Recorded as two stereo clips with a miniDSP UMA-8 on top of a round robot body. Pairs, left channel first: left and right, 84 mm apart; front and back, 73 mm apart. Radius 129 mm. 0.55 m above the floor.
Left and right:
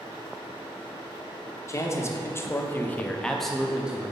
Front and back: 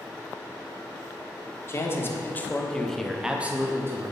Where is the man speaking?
45° left, 1.5 m; by 4.1 s 155° right, 1.2 m.